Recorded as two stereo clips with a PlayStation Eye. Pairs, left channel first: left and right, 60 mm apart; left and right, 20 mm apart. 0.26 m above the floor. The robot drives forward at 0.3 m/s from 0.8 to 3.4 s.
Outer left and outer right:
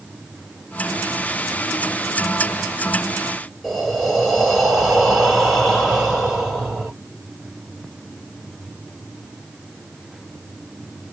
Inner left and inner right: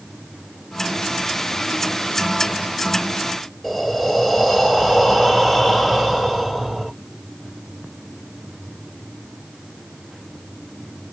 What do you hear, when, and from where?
3.6 s breathing: 5° right (ahead or behind), 3 m